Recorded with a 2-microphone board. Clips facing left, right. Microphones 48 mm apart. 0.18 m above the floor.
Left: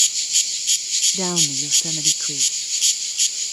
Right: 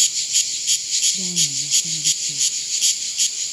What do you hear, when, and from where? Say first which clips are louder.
1.1 s a woman speaking: left 4 dB; 75° left (ahead or behind)